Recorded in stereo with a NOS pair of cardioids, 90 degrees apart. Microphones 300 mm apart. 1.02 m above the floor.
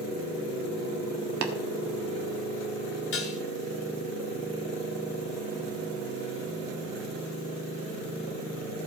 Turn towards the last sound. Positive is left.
turn(degrees=50)